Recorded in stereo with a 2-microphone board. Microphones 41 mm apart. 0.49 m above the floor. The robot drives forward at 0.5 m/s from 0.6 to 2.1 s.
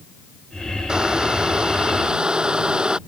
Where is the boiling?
15° right (ahead or behind); by 3.0 s 20° right (ahead or behind).